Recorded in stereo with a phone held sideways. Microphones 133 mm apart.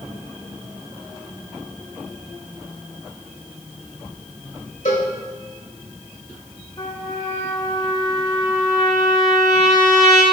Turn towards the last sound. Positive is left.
turn(degrees=35)  # may be behind; listen again after turning